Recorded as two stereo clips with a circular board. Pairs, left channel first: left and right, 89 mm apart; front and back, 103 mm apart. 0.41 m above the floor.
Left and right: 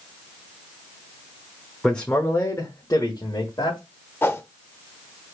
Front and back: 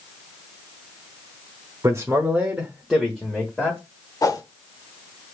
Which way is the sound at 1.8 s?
165° left.